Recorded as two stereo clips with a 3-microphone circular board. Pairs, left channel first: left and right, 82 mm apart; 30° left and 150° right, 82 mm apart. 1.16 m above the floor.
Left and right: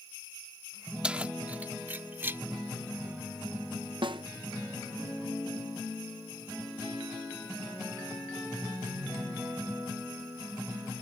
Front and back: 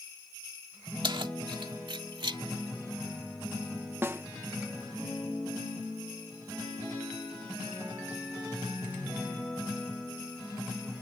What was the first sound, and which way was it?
Keys jangling, 165° right.